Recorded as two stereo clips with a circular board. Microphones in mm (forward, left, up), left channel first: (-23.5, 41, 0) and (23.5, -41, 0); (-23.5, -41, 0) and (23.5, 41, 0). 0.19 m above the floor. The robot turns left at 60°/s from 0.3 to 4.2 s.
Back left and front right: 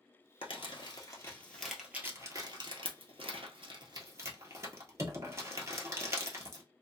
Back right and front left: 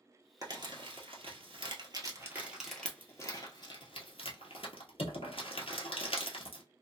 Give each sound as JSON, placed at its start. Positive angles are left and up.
{"t": 0.4, "sound": "crumpling", "azimuth_deg": 105, "distance_m": 0.9}